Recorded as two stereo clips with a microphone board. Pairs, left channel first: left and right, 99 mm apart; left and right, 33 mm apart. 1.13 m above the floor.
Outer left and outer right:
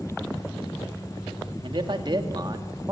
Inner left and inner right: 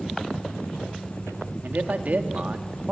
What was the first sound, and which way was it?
A man speaking, 55° right (ahead or behind).